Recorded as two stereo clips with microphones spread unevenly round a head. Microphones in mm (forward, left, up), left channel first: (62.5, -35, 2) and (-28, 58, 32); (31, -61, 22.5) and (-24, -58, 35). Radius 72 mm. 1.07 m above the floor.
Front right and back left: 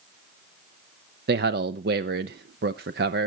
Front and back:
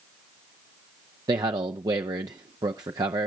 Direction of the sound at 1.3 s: 160° left.